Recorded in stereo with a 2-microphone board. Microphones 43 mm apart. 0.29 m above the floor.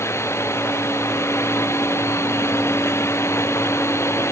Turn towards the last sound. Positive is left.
turn(degrees=80)